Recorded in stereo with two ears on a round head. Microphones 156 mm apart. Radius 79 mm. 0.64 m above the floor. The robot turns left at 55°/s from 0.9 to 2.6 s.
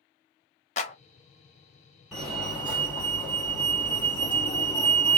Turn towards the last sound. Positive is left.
turn(degrees=10)  # may be behind; listen again after turning